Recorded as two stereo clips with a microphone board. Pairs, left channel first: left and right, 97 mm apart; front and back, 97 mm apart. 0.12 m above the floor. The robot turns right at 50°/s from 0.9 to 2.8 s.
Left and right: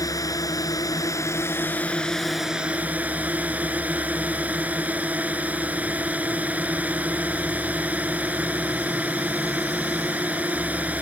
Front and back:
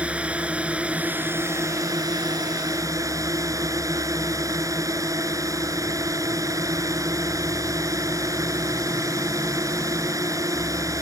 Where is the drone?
110° left; by 11.0 s 155° right.